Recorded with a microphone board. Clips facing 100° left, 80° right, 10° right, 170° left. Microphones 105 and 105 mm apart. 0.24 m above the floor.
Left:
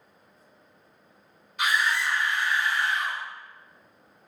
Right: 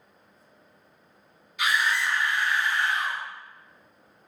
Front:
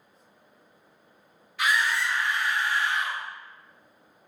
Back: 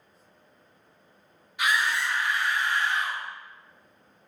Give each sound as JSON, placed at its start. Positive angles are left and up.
{"t": 1.6, "sound": "a scream", "azimuth_deg": 105, "distance_m": 1.6}